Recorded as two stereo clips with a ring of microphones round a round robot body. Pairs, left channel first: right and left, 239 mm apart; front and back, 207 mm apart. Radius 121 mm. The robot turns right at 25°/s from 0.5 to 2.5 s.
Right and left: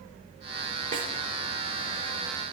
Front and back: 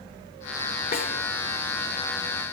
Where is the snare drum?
35° left, 1.4 m; by 1.1 s 40° left, 1.4 m.